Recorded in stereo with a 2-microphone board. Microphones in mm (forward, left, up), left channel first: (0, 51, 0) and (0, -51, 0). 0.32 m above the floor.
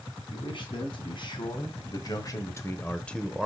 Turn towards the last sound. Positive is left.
turn(degrees=-5)  # may be behind; listen again after turning